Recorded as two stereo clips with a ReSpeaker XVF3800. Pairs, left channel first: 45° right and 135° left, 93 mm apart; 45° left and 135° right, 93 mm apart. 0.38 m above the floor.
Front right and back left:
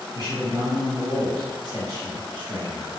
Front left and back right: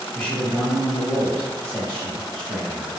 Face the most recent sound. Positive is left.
turn(degrees=120)